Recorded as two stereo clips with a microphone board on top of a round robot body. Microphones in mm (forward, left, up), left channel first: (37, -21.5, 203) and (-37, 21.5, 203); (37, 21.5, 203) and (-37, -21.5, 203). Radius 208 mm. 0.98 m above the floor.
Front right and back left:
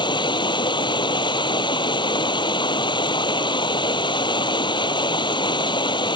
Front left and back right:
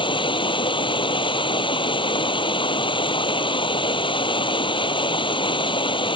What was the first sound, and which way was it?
Running water, 5° left.